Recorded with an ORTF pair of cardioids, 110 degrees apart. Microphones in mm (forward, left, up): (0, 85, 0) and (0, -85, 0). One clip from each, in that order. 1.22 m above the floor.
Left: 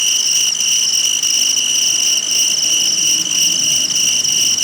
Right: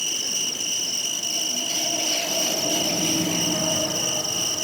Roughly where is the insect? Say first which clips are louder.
Left 11 dB; ahead left.